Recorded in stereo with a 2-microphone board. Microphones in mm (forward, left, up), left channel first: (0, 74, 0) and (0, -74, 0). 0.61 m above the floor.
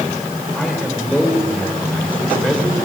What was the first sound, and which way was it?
A man speaking, 10° left (ahead or behind).